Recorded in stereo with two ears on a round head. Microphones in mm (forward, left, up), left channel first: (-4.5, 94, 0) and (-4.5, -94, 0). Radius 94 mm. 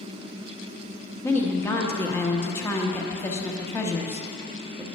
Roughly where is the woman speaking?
Centre.